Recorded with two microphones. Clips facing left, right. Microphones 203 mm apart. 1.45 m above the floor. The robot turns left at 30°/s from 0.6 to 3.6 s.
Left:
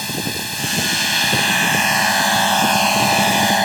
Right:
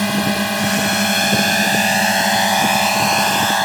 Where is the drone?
110° right; by 3.6 s 160° left.